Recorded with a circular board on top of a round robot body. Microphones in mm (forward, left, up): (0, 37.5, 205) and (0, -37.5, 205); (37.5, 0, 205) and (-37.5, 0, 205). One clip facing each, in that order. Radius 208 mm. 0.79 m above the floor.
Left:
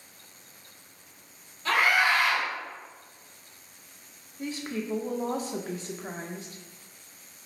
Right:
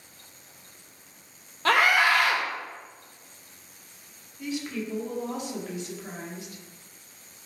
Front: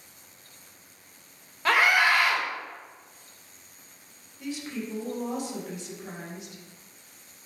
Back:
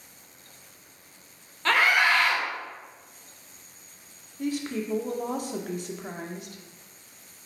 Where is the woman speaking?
140° left, 0.8 m.